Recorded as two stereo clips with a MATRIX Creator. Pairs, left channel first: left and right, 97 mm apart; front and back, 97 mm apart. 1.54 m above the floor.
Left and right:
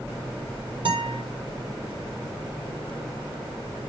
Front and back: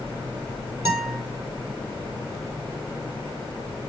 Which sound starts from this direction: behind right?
A guitar, at 0.8 s.